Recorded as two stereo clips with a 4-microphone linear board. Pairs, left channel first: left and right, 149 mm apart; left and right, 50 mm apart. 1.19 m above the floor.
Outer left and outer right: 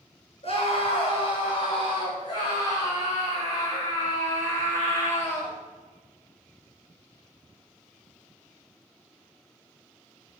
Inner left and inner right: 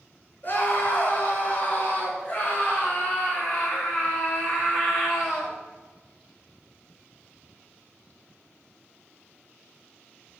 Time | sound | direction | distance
0.4 | a scream | 40° left (ahead or behind) | 6 m